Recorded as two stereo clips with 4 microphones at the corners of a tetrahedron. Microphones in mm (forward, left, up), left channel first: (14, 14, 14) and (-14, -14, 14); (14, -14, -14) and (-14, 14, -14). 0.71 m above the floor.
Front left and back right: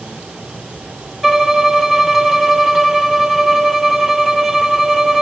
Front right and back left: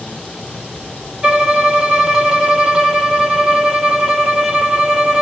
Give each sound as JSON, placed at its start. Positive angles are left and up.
{"t": 1.2, "sound": "a violin", "azimuth_deg": 150, "distance_m": 0.9}